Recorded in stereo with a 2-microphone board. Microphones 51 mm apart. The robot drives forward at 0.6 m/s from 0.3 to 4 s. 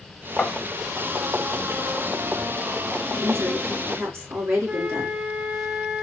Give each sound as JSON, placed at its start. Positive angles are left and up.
{"t": 0.4, "sound": "tapping", "side_deg": 20, "distance_m": 1.3}
{"t": 3.2, "sound": "a woman speaking", "side_deg": -55, "distance_m": 3.0}
{"t": 4.7, "sound": "a flute", "side_deg": -35, "distance_m": 1.2}